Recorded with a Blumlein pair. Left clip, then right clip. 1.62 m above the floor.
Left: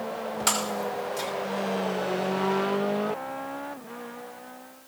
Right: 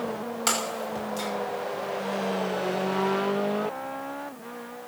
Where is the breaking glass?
10° right, 6 m.